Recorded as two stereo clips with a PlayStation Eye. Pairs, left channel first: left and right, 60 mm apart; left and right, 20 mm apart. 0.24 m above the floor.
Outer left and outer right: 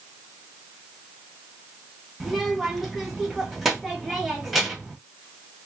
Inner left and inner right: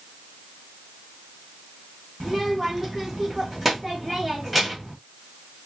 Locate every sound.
2.2 s a child speaking: 5° right (ahead or behind), 1.2 m